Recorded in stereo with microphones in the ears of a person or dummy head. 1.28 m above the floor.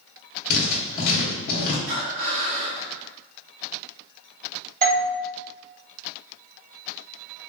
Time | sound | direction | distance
0.5 | writing | 50° left (ahead or behind) | 1.1 m
1.9 | breathing | 70° right (ahead or behind) | 1.2 m
4.8 | a doorbell | 40° right (ahead or behind) | 1.5 m